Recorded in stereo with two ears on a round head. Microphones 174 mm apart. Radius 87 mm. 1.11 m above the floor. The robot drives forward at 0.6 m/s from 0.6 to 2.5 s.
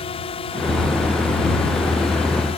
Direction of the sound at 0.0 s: 30° left (ahead or behind).